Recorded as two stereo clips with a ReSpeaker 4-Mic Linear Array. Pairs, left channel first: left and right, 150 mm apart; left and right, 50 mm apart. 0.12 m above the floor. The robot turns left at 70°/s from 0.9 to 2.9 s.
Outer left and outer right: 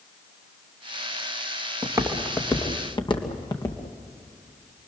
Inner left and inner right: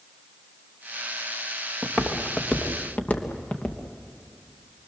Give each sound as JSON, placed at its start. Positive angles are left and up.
{"t": 1.8, "sound": "footsteps", "side_deg": -25, "distance_m": 3.0}